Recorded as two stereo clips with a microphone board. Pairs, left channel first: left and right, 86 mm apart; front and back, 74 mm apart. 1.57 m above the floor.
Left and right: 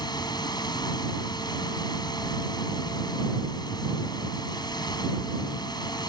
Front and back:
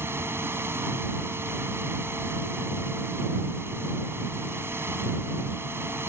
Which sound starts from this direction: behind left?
Running water, at 0.0 s.